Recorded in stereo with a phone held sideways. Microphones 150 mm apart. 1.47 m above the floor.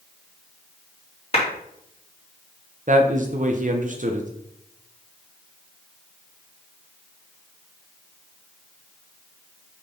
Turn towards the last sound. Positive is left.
turn(degrees=-60)  # may be behind; listen again after turning